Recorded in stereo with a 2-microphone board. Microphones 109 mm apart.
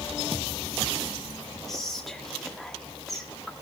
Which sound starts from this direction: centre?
Whispering, at 1.7 s.